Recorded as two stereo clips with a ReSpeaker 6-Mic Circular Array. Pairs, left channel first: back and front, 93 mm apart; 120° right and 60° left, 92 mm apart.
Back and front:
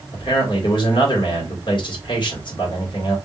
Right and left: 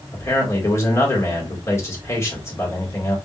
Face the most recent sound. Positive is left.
turn(degrees=-170)